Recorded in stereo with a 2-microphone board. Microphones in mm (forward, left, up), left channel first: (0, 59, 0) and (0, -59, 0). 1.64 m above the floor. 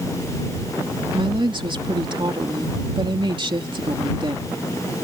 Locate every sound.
1.1 s a woman speaking: 45° right (ahead or behind)